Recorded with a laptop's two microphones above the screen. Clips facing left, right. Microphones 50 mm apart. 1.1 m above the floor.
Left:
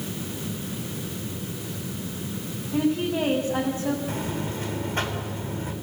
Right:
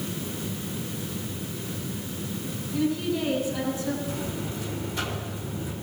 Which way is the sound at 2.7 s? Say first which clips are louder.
Left 3 dB; 40° left (ahead or behind).